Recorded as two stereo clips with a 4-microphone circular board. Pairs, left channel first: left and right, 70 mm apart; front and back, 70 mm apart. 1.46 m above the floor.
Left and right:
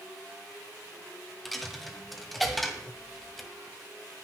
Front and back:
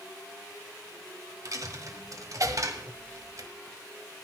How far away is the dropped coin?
About 1.8 m.